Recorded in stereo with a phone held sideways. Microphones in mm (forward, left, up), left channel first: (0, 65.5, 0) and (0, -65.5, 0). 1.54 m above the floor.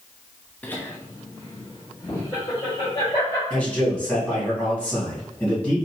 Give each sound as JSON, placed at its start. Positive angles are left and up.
{"t": 0.6, "sound": "laughter", "side_deg": 10, "distance_m": 0.6}
{"t": 3.5, "sound": "a man speaking", "side_deg": 10, "distance_m": 2.0}